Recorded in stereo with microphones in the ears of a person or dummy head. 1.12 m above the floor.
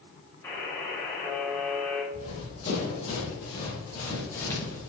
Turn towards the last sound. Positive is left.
turn(degrees=10)  # may be behind; listen again after turning